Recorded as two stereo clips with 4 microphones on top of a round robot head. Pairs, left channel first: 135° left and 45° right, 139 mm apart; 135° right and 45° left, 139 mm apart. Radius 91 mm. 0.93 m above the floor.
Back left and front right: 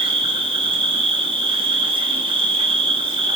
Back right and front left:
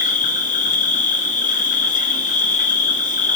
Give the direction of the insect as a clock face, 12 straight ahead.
3 o'clock.